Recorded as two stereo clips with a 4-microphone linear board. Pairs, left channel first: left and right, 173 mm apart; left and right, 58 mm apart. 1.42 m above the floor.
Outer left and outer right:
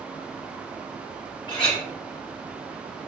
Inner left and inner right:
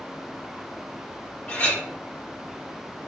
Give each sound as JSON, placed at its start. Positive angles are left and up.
{"t": 1.5, "sound": "a clink", "side_deg": 30, "distance_m": 1.4}